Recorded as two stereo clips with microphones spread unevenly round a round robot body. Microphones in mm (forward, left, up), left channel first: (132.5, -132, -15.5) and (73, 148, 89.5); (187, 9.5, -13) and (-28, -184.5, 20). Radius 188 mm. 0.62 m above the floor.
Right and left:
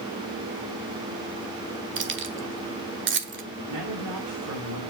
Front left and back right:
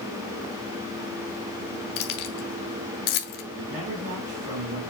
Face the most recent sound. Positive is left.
turn(degrees=150)